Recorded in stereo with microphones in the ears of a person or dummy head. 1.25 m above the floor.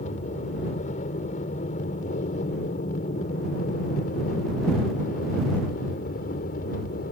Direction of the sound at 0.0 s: 40° left (ahead or behind).